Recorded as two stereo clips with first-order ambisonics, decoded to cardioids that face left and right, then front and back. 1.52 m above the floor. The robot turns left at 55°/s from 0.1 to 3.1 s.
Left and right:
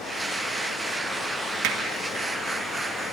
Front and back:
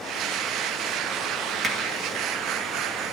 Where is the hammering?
105° right, 1.4 m; by 1.8 s 115° right, 1.4 m.